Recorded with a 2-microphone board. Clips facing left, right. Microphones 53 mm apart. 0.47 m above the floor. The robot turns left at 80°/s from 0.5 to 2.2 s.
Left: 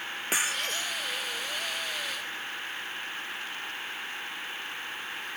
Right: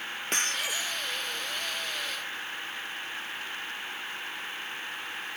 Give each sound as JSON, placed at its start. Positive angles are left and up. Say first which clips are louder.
{"t": 0.3, "sound": "breaking glass", "louder": "left 1 dB", "azimuth_deg": 5}